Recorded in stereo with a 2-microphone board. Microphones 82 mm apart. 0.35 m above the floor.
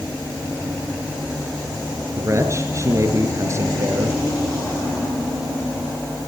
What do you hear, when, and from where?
2.2 s a man speaking: 35° right (ahead or behind), 6 m